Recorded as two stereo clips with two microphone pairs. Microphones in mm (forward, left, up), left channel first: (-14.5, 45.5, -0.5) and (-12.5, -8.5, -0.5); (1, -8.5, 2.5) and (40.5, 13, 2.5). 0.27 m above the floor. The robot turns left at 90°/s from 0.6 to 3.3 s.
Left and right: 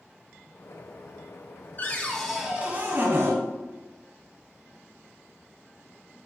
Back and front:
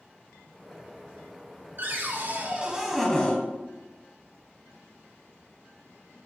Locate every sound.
1.8 s a cupboard door: 50° left, 1.1 m; by 3.4 s 85° right, 1.1 m